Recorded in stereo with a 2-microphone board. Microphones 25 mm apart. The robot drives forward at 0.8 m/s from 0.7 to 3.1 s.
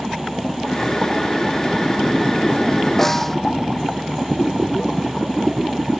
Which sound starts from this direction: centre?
A snare drum, at 3.0 s.